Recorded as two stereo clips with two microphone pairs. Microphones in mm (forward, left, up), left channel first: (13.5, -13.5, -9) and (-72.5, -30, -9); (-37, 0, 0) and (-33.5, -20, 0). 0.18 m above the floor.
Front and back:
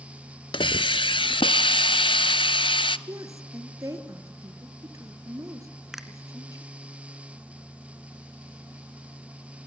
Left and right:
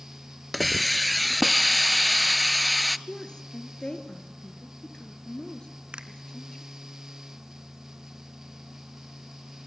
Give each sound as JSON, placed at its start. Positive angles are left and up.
{"t": 0.5, "sound": "a hiss", "azimuth_deg": 10, "distance_m": 0.6}
{"t": 3.1, "sound": "a woman speaking", "azimuth_deg": 145, "distance_m": 3.0}
{"t": 5.9, "sound": "a finger snap", "azimuth_deg": -85, "distance_m": 1.8}